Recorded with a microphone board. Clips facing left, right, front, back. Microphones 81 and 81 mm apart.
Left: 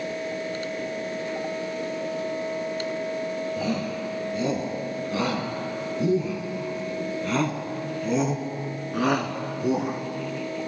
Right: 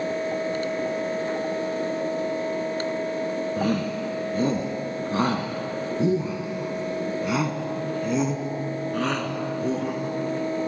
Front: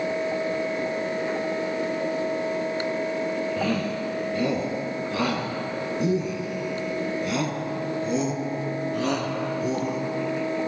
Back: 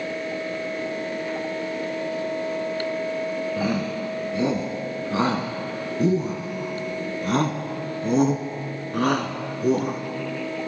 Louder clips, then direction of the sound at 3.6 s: Right 3 dB, back 1 dB; 110° right.